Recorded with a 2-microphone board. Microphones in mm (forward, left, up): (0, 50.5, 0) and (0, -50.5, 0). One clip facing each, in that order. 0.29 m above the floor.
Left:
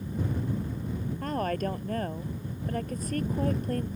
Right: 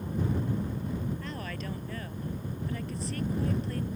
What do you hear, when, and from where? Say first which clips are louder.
1.2 s a woman speaking: left 9 dB; 45° left (ahead or behind)